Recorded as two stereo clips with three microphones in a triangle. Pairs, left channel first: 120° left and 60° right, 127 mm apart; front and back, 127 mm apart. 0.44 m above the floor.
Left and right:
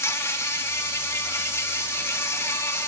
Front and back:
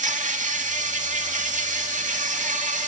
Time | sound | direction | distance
0.0 | an insect | 170° right | 0.7 m